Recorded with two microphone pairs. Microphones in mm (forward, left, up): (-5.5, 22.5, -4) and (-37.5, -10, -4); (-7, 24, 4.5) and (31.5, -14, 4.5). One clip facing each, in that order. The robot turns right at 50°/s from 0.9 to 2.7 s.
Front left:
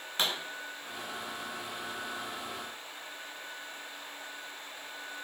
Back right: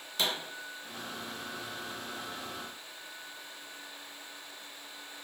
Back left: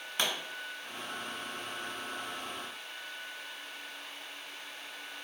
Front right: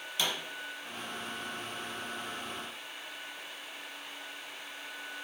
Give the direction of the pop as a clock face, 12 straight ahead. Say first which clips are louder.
Even, back left 1 dB; 9 o'clock.